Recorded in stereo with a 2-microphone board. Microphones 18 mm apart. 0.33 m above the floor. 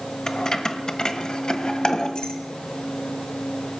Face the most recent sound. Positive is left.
turn(degrees=55)  # may be behind; listen again after turning